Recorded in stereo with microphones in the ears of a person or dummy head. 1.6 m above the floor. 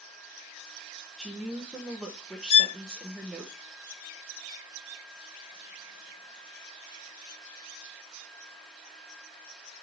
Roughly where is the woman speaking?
Centre.